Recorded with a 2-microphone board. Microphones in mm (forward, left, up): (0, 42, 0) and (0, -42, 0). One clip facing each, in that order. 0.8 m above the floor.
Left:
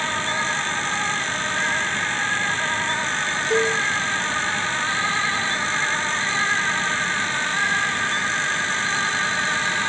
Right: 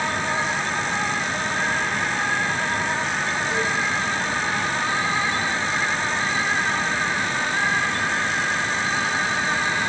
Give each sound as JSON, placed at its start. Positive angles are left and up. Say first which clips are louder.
{"t": 3.5, "sound": "a cowbell", "louder": "left 7 dB", "side_deg": 65, "distance_m": 6.5}